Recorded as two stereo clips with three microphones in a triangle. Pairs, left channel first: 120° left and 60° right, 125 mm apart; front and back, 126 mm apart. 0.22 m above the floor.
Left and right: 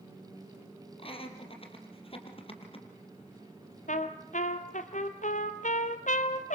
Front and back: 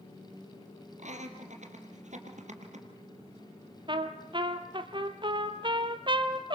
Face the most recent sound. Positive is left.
turn(degrees=130)